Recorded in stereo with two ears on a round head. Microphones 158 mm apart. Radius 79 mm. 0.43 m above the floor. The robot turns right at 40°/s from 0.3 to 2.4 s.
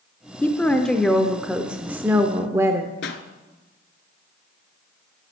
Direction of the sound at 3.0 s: 65° left (ahead or behind).